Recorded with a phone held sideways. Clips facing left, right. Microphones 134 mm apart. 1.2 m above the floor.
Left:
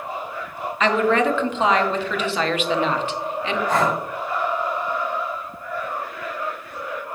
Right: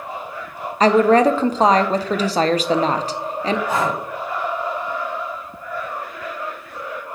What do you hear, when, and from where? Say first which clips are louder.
0.8 s a woman speaking: right 6 dB; 40° right (ahead or behind), 0.6 m
3.7 s breathing: left 1 dB; 10° right (ahead or behind), 3.5 m